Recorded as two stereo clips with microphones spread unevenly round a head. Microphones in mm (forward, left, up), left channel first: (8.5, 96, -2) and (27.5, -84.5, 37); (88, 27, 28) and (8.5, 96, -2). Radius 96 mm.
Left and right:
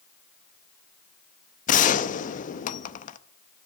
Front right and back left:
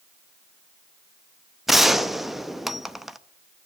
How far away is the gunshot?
About 0.6 m.